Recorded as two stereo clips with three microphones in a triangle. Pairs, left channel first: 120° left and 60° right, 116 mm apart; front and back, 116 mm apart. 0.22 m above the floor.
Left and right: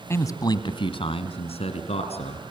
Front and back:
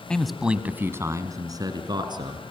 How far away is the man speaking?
About 1.2 m.